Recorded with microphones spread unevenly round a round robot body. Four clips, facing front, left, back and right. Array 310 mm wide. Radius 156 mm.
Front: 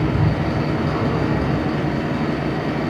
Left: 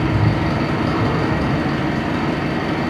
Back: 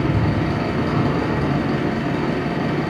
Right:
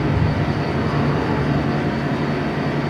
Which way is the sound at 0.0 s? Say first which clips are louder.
Left 2 dB, even; 160° left.